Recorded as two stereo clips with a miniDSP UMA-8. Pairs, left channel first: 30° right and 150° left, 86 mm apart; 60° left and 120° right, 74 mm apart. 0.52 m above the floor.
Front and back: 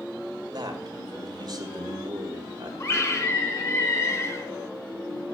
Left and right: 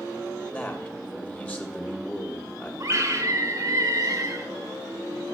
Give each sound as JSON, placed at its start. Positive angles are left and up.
{"t": 0.5, "sound": "a man speaking", "azimuth_deg": 125, "distance_m": 2.0}
{"t": 2.8, "sound": "a scream", "azimuth_deg": -80, "distance_m": 2.0}